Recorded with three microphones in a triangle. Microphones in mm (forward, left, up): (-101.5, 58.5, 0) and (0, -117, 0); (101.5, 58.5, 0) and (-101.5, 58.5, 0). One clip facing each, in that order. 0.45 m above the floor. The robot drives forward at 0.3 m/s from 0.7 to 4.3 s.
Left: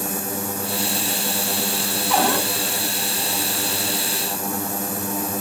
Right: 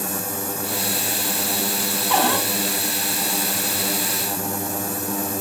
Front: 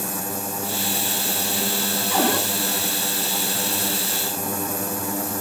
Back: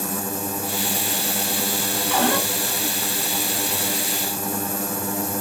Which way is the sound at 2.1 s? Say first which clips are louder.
Left 1 dB, even; 165° right.